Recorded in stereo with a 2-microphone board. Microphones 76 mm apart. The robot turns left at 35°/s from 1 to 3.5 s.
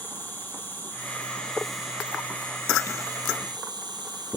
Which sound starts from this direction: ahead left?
An insect, at 0.0 s.